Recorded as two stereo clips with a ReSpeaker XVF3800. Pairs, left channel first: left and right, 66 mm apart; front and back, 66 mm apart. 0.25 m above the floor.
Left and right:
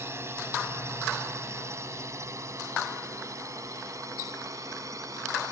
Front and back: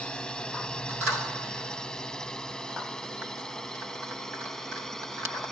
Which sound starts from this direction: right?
A drone, at 0.0 s.